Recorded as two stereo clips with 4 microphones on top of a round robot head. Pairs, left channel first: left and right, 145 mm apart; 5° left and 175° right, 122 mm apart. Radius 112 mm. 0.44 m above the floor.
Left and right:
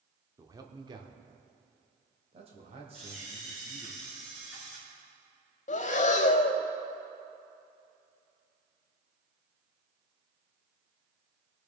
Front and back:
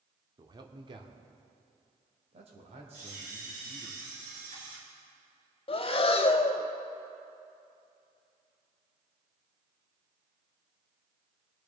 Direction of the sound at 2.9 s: Straight behind.